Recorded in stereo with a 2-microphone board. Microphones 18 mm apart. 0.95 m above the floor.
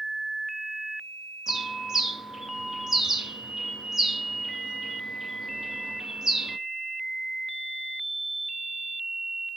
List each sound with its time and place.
1.5 s a bird: 20° right (ahead or behind), 0.9 m